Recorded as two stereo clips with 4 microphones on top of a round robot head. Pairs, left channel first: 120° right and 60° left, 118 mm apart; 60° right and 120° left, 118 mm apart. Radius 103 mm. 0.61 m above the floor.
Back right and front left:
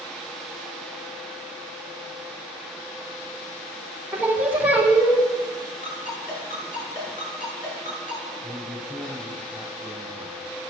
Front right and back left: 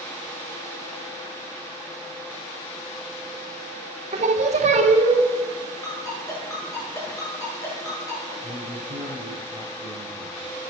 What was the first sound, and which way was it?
Singing, 135° left.